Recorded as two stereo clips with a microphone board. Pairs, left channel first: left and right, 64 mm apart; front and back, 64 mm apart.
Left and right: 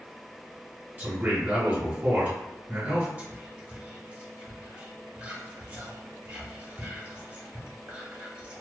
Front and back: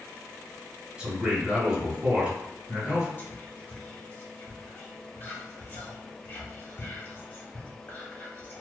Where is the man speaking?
125° right, 1.3 m.